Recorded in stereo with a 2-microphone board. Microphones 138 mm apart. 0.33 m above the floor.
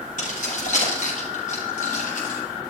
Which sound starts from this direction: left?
Keys jangling, at 0.2 s.